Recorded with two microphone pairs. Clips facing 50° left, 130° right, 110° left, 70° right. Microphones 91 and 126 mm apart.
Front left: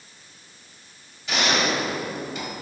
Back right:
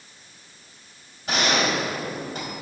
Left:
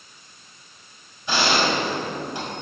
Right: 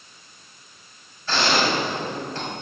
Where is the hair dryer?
I don't hear a hair dryer.